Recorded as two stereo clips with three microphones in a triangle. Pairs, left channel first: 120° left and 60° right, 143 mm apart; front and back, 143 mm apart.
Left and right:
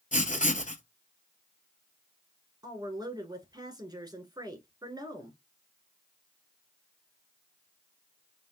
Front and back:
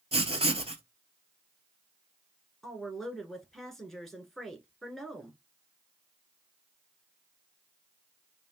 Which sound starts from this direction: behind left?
Writing, at 0.1 s.